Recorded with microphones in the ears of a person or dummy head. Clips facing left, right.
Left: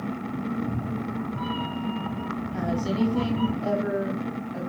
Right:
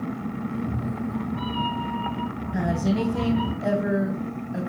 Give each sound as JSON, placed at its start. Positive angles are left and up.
{"t": 0.5, "sound": "a cat meowing", "side_deg": -30, "distance_m": 1.9}
{"t": 2.5, "sound": "a woman speaking", "side_deg": -35, "distance_m": 1.3}